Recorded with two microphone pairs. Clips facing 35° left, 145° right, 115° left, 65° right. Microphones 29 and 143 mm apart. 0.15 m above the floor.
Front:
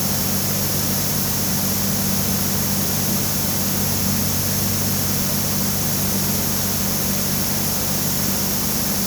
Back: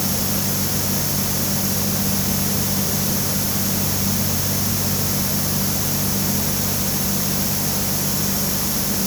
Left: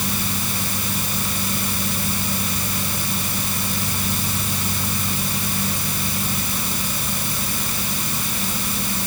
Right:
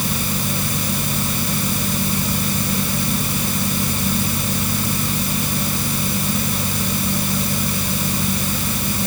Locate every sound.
Only background noise.